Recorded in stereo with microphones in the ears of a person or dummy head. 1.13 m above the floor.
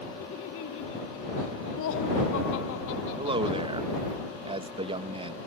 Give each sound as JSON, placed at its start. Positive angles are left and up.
{"t": 0.2, "sound": "laughter", "side_deg": 70}
{"t": 3.2, "sound": "a man speaking", "side_deg": -25}